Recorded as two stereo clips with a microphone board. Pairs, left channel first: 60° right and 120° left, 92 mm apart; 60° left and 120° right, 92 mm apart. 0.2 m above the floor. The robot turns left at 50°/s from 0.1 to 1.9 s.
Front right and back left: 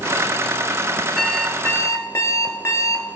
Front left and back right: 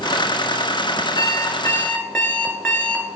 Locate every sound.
1.2 s an alarm clock: 15° left, 1.0 m; by 3.0 s 20° right, 1.0 m